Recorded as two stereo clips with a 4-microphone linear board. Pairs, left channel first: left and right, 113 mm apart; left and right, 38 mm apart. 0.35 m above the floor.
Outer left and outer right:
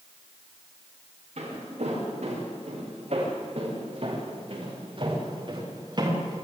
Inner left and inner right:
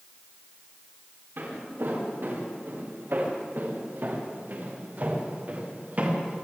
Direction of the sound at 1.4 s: 75° right (ahead or behind).